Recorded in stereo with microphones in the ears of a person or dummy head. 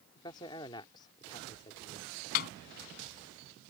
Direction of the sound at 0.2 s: 25° left (ahead or behind).